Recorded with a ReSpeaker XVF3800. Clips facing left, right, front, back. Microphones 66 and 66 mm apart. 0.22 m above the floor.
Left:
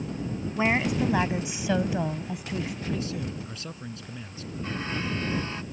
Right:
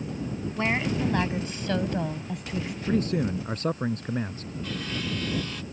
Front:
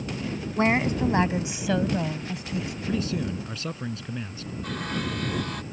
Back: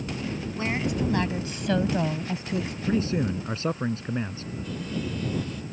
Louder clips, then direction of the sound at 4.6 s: Left 1 dB, front 2 dB; 25° left.